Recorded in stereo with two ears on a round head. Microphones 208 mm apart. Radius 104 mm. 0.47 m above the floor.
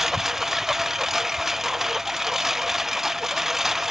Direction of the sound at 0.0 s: Centre (ahead or behind).